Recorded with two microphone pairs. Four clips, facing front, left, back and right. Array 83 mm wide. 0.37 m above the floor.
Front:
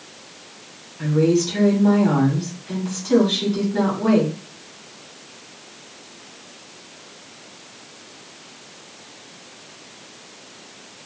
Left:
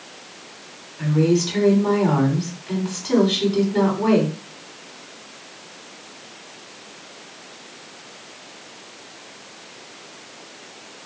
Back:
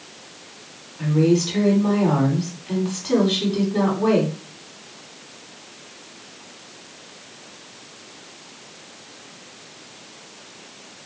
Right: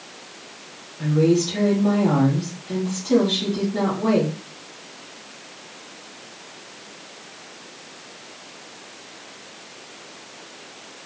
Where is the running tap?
I don't hear a running tap.